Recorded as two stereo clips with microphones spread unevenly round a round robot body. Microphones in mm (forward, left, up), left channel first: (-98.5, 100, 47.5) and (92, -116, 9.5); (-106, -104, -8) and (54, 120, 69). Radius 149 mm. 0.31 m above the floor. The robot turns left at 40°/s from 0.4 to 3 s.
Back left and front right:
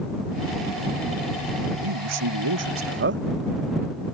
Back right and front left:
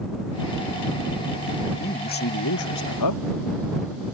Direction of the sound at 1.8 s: 50° right.